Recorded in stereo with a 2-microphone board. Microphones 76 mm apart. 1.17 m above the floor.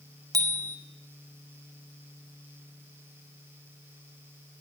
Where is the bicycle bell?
60° right (ahead or behind), 4 m.